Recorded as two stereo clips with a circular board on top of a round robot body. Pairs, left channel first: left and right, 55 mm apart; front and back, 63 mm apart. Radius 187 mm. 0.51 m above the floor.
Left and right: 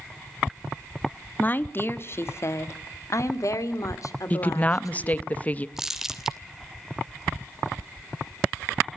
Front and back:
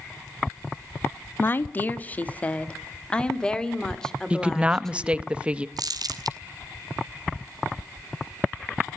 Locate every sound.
1.4 s a woman speaking: 45° left, 1.5 m; by 5.3 s 85° left, 3.5 m
4.3 s a woman speaking: 125° left, 1.0 m
5.8 s crumpling: 170° right, 2.5 m